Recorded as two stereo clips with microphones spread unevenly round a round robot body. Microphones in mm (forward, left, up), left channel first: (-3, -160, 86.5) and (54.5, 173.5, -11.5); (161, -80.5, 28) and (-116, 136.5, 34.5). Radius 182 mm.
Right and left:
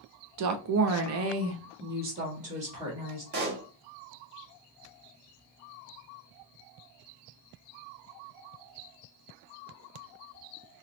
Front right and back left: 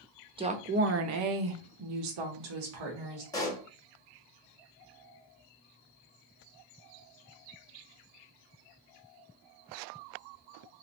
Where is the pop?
40° left, 1.1 m.